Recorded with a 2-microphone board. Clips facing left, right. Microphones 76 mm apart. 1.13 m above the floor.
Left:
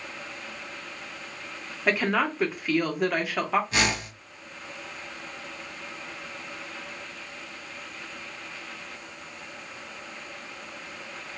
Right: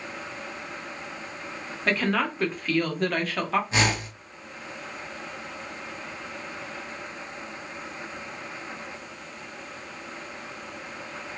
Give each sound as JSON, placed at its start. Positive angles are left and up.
{"t": 1.9, "sound": "a woman speaking", "side_deg": 10, "distance_m": 0.6}
{"t": 3.7, "sound": "a whoosh", "side_deg": -30, "distance_m": 1.1}